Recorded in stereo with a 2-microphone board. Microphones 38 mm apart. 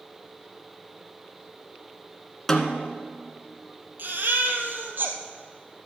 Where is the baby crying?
55° right (ahead or behind), 1.5 m.